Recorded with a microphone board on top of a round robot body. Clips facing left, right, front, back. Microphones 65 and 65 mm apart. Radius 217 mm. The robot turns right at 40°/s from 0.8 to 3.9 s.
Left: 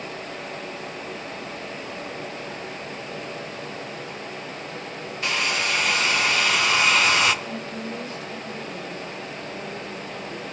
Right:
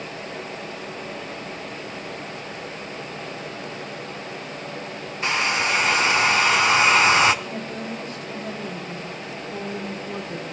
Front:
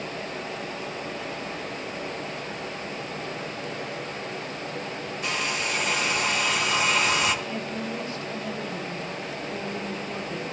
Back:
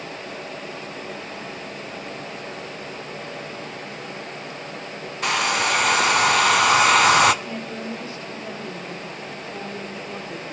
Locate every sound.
5.2 s a hair dryer: 155° right, 0.6 m
7.4 s a woman speaking: 120° right, 3 m